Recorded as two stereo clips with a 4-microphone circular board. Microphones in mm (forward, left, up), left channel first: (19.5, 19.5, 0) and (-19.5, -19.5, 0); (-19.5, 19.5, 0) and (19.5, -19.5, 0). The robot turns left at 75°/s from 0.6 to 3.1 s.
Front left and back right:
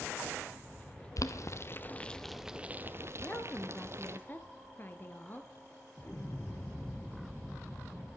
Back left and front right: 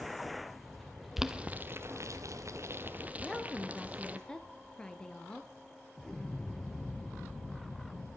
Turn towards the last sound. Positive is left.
turn(degrees=60)